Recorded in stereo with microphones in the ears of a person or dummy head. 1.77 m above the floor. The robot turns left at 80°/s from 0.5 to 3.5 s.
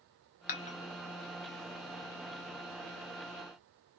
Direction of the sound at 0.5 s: 40° left (ahead or behind).